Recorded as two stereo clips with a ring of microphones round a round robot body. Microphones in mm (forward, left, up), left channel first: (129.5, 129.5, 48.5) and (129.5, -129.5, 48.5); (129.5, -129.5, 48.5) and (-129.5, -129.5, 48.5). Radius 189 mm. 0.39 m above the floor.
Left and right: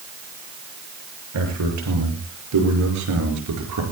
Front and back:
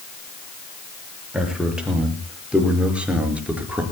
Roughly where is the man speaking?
Right.